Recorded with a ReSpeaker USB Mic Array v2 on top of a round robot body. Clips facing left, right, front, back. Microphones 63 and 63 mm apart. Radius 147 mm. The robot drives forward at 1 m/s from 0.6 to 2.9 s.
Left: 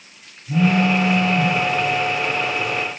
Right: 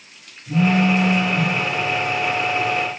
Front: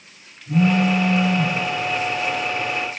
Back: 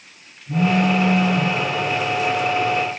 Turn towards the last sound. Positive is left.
turn(degrees=-145)